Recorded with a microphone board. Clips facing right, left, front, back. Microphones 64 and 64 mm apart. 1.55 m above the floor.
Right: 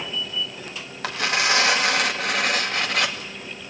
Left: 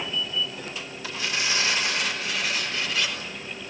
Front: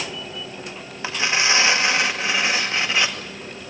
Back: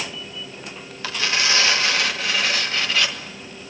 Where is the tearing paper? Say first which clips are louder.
Right 7 dB, front 2 dB; 70° right, 2 m.